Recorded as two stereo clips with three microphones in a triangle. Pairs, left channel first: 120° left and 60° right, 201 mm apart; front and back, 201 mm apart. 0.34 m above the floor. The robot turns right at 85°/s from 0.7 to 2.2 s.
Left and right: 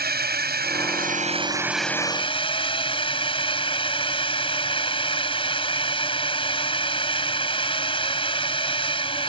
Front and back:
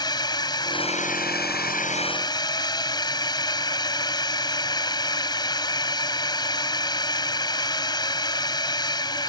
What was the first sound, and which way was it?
A drone, 65° right.